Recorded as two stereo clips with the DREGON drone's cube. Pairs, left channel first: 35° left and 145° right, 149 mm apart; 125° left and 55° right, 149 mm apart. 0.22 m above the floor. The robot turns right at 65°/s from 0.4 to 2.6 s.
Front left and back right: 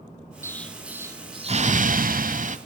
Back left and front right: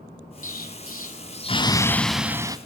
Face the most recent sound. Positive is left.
turn(degrees=-115)